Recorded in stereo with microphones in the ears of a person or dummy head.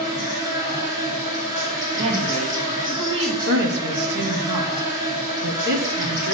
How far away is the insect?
About 4 m.